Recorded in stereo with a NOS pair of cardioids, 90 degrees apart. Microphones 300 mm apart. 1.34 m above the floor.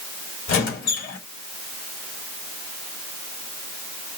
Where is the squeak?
70° left, 2.5 m.